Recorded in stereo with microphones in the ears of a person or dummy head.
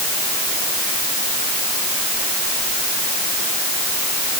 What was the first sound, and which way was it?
Only background noise.